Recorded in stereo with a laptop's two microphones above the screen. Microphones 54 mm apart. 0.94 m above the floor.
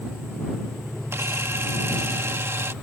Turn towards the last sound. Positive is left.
turn(degrees=-55)  # may be behind; listen again after turning